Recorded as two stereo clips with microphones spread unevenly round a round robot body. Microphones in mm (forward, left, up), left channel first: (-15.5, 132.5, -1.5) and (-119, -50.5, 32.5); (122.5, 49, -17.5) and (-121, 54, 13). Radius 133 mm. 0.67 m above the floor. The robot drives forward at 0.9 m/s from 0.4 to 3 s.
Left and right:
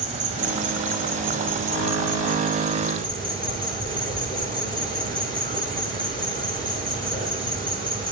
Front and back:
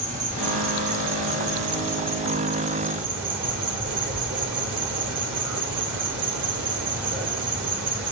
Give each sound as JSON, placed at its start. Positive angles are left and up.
{"t": 0.0, "sound": "an insect", "azimuth_deg": -145, "distance_m": 2.0}